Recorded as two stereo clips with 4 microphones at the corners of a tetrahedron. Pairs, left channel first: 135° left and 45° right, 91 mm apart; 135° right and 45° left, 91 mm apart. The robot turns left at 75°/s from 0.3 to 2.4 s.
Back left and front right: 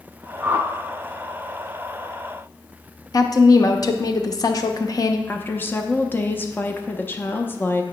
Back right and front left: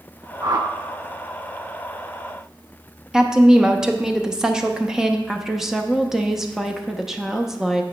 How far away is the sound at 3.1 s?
About 0.6 m.